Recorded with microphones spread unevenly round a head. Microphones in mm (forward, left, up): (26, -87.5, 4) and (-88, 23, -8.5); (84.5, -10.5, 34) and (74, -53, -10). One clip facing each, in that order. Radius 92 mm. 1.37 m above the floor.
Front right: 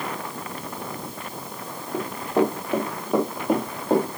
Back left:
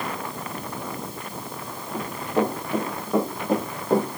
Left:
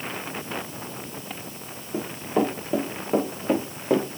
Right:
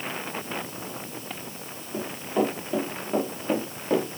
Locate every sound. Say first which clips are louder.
1.9 s running footsteps: front right 2 dB, left 2 dB; 35° left, 6 m; by 4.2 s 30° left, 4.5 m